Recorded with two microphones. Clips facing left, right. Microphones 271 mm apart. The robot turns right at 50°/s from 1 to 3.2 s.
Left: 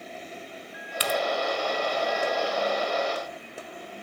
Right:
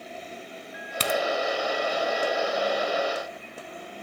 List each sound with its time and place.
1.0 s a crack: 55° right (ahead or behind), 0.7 m